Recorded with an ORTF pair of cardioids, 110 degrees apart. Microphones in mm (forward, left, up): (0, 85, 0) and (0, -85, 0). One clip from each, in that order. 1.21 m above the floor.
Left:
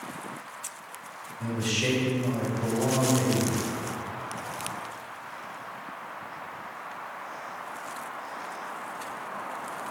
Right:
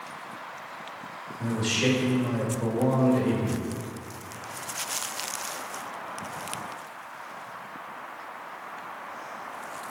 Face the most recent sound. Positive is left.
turn(degrees=-30)